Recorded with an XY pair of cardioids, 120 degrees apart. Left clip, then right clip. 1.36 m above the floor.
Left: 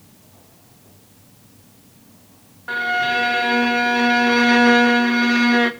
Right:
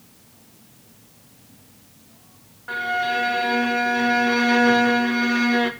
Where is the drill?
I don't hear a drill.